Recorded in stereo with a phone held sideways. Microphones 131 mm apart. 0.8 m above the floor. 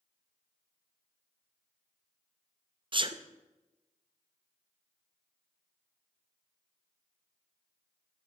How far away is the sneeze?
About 0.5 m.